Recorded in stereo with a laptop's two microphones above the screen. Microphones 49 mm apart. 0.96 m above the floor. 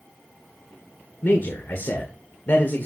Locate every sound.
1.2 s a man speaking: 50° left (ahead or behind), 1.3 m